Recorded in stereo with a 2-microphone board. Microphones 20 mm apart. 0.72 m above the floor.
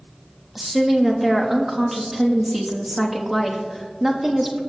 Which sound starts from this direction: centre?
A woman speaking, at 0.6 s.